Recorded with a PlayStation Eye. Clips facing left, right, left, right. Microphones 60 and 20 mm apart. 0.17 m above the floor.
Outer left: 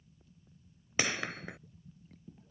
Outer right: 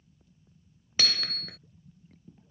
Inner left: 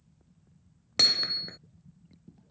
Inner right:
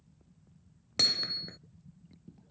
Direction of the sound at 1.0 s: 20° left (ahead or behind).